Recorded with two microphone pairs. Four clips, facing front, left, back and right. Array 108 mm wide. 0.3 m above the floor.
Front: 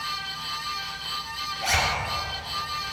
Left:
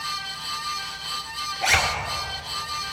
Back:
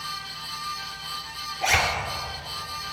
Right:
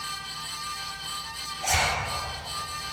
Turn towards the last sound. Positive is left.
turn(degrees=100)